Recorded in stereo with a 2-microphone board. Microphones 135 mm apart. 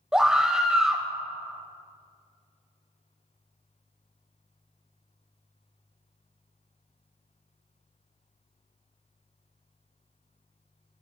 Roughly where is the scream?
Centre.